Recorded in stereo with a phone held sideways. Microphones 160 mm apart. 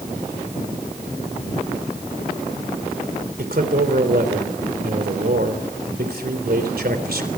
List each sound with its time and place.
3.4 s a man speaking: 75° right (ahead or behind), 3.5 m